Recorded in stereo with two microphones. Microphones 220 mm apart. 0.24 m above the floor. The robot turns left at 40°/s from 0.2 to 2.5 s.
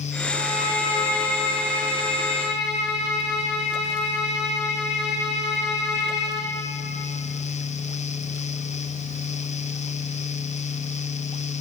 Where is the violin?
45° left, 9.5 m; by 6.4 s 45° right, 9.5 m.